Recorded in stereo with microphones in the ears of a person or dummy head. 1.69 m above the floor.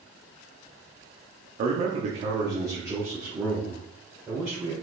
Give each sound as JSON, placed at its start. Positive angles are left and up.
{"t": 1.6, "sound": "a man speaking", "side_deg": -50, "distance_m": 0.8}